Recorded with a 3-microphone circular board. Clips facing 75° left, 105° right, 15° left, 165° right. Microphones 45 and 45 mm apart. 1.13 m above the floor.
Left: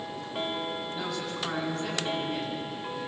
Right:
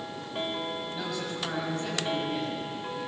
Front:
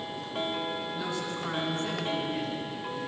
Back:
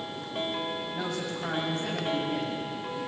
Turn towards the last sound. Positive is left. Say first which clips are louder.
# even, even
turn(degrees=165)